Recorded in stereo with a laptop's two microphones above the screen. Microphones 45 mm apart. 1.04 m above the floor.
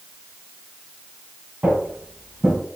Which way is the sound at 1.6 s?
35° right (ahead or behind).